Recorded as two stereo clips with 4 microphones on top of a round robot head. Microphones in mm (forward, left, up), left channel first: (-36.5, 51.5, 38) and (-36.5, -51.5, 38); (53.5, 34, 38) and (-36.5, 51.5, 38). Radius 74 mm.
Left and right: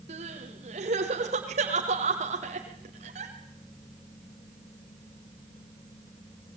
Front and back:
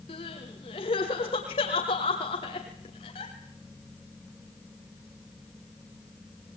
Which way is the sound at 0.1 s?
55° right.